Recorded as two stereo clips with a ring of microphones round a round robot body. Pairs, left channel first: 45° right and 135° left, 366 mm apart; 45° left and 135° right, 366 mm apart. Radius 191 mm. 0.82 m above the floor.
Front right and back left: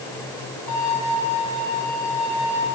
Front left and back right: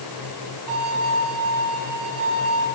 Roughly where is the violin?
Right.